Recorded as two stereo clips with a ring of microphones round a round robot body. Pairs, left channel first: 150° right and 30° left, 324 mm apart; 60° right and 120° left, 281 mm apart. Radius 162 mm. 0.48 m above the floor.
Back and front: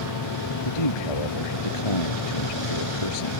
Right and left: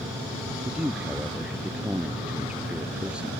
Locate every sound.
0.7 s a man speaking: 155° right